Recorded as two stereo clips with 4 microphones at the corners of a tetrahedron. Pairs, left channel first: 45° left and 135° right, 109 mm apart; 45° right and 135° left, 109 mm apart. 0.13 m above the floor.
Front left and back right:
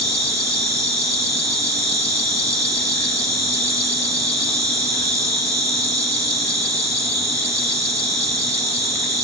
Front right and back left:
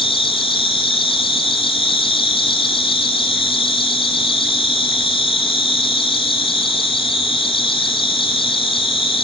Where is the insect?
75° right, 1.6 m.